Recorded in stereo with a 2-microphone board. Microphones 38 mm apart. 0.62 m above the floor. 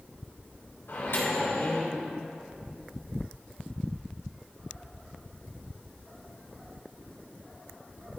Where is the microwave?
75° left (ahead or behind), 2.5 m.